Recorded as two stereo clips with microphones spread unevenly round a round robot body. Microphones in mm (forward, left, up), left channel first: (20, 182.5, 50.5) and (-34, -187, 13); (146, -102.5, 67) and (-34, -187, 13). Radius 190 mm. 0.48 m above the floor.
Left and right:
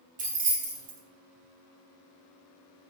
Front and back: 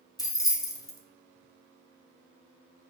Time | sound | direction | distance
0.2 | keys jangling | 60° right | 0.8 m